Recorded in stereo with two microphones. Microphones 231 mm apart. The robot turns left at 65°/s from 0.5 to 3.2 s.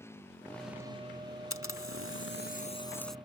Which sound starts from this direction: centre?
A motorcycle, at 0.0 s.